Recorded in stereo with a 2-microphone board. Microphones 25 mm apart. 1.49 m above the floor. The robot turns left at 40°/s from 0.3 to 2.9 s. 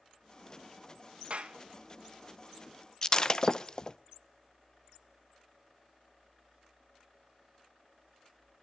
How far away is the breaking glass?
About 0.6 m.